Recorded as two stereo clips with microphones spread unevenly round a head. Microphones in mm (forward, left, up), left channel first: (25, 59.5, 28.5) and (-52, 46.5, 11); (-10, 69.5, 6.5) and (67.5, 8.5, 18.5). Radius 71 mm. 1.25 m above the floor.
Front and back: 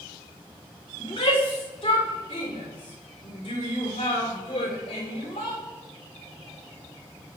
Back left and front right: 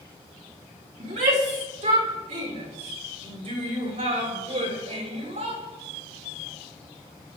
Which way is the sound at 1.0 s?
45° right.